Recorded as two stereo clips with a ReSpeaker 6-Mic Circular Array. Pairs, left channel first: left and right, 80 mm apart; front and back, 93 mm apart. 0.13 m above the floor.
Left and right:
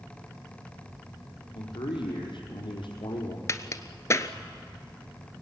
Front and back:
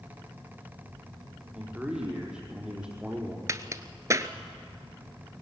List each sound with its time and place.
1.5 s a man speaking: 100° left, 5 m
3.5 s a crack: 130° left, 1.0 m